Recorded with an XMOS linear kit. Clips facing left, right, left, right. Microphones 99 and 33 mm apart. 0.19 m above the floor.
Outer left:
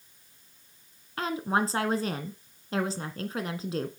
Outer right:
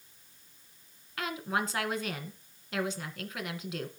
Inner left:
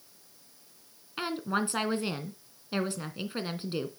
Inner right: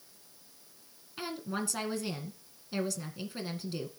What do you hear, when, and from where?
1.2 s a woman speaking: 35° left (ahead or behind), 2 m